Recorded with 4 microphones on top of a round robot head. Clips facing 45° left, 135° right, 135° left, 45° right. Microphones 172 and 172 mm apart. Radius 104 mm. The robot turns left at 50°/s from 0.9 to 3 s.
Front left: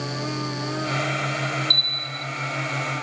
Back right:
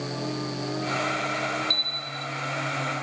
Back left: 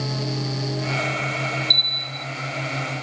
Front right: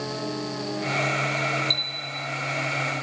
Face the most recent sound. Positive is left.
turn(degrees=40)